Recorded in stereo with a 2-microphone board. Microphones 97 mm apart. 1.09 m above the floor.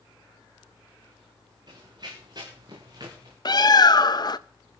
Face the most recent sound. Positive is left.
turn(degrees=45)  # may be behind; listen again after turning